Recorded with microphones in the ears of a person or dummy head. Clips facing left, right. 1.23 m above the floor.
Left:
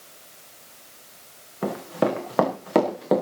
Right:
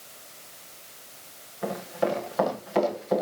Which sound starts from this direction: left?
Running footsteps, at 1.6 s.